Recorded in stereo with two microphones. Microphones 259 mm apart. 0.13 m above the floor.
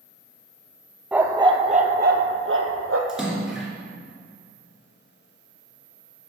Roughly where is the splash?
Centre.